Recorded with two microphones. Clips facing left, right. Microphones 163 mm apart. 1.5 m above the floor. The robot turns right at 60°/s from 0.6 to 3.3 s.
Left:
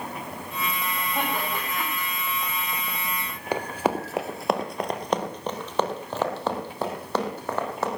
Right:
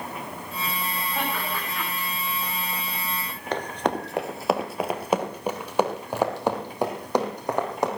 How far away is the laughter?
About 7 m.